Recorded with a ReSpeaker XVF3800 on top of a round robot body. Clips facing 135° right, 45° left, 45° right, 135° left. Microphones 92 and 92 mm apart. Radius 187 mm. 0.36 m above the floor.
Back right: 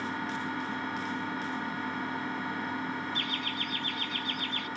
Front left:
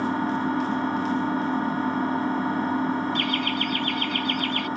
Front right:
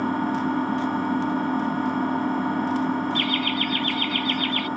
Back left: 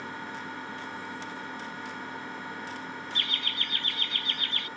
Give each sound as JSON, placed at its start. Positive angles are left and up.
{"t": 0.0, "sound": "an engine running", "azimuth_deg": -10}
{"t": 3.1, "sound": "laughter", "azimuth_deg": 70}